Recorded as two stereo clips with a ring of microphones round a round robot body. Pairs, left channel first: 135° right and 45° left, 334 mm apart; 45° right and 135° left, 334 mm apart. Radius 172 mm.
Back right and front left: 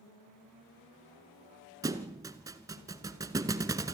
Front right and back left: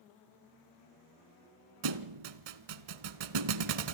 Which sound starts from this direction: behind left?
A thud, at 1.8 s.